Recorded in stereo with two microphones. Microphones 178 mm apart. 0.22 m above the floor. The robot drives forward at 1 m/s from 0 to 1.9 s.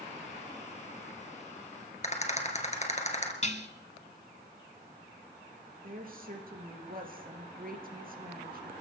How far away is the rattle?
About 2.5 m.